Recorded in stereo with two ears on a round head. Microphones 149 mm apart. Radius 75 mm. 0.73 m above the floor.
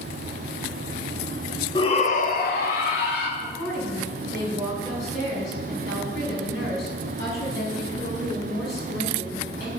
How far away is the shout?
About 0.8 m.